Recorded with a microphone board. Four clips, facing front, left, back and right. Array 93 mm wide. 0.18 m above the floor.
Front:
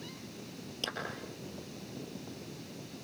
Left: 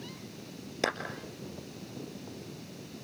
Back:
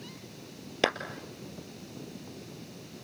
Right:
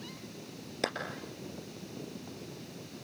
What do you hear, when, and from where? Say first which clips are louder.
0.8 s a clap: left 3 dB, back 14 dB; 175° left, 3 m